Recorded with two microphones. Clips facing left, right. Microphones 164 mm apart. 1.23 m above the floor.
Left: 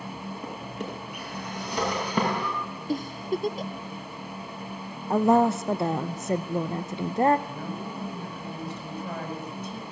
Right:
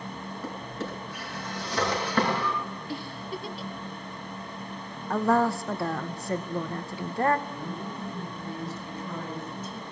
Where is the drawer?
15° left (ahead or behind), 8 m.